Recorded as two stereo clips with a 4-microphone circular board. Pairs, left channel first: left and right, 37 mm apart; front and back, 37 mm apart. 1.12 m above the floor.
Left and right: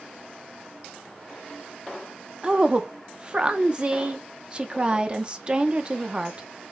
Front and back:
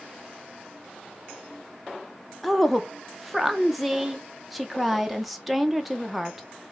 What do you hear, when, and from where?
2.4 s a woman speaking: 95° right, 0.6 m